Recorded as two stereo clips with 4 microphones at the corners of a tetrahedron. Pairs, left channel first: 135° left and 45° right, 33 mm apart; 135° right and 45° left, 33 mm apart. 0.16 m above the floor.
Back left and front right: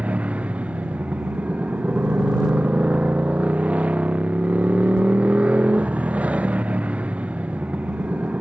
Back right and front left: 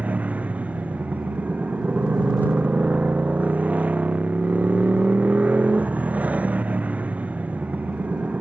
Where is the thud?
No thud in this recording.